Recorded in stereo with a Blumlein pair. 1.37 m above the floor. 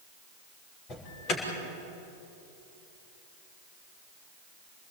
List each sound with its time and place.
0.9 s an alarm: 35° left, 6 m